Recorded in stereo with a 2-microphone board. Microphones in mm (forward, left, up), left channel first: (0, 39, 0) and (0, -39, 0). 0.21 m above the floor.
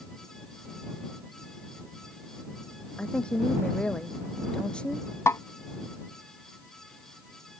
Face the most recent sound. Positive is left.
turn(degrees=35)  # may be behind; listen again after turning